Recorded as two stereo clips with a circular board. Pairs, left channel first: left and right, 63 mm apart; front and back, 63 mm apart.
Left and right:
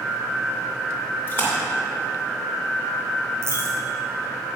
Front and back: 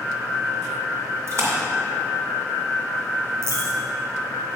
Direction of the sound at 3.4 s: 135° right.